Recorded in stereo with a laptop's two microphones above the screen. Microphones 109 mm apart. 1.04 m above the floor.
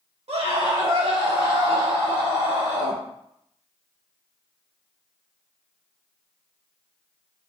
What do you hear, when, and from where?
0.3 s a scream: 65° right (ahead or behind), 1.8 m; by 3.0 s 90° right, 3.5 m